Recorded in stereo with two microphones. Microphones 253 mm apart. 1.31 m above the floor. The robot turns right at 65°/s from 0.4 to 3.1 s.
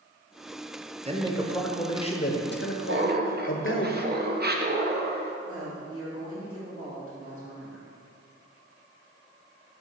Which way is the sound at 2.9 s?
50° right (ahead or behind).